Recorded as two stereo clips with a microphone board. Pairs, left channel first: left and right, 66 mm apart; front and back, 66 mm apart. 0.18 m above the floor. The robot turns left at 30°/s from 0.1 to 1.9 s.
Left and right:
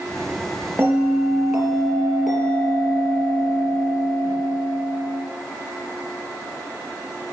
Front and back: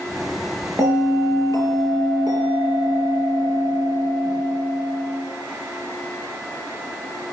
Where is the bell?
145° right, 4 m; by 5.2 s straight behind, 4 m.